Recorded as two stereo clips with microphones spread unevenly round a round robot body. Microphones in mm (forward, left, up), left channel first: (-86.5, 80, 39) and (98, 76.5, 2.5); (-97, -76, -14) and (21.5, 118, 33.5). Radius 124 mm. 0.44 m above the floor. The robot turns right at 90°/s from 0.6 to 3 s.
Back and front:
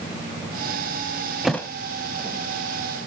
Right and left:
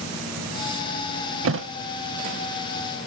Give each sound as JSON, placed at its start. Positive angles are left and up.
{"t": 1.4, "sound": "a thud", "azimuth_deg": 85, "distance_m": 0.9}